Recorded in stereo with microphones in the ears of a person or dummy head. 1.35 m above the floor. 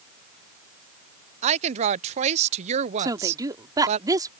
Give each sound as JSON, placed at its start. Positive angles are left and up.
{"t": 1.4, "sound": "a woman speaking", "side_deg": -35}
{"t": 3.0, "sound": "a woman speaking", "side_deg": -20}